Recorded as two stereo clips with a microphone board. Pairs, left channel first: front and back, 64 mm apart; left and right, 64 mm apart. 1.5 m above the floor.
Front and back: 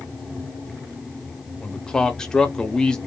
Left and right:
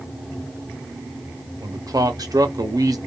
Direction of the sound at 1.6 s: 80° right.